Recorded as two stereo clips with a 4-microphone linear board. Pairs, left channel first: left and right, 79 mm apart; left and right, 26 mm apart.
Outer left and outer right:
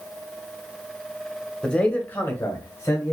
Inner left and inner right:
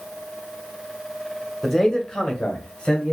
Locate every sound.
1.6 s a man speaking: 10° left (ahead or behind), 1.0 m; by 3.1 s 45° left (ahead or behind), 1.6 m